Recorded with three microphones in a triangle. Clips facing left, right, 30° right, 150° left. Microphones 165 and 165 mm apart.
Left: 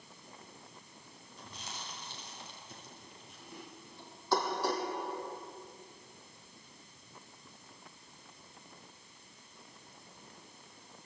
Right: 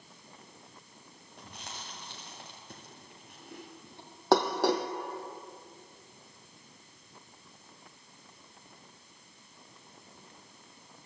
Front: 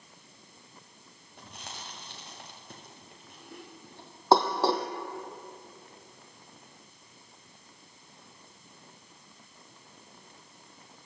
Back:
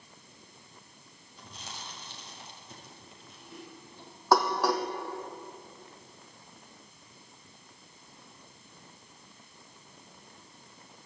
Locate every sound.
1.4 s chewing: 60° right, 7.5 m
4.3 s dishes clattering: 90° right, 2.5 m